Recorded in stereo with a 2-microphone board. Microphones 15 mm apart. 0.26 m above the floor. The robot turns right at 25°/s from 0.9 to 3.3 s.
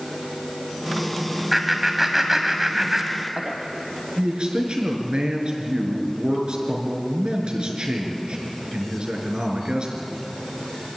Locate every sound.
1.5 s laughter: 10° right (ahead or behind), 1.5 m; by 3.6 s 35° right (ahead or behind), 1.5 m
4.2 s a man speaking: 70° right (ahead or behind), 4.5 m